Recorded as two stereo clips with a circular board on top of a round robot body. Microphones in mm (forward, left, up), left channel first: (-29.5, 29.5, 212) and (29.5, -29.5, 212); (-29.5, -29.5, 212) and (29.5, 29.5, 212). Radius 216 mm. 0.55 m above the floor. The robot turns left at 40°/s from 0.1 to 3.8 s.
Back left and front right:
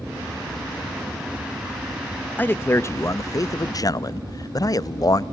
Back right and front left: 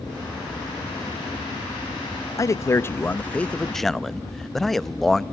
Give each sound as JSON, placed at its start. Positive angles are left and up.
{"t": 2.4, "sound": "a man speaking", "azimuth_deg": -165, "distance_m": 0.8}